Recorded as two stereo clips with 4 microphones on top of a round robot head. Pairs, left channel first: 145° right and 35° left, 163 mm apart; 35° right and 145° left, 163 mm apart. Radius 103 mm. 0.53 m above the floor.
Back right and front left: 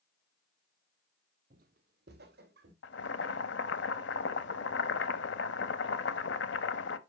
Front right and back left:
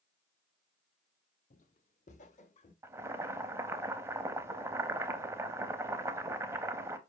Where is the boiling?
140° right, 0.6 m.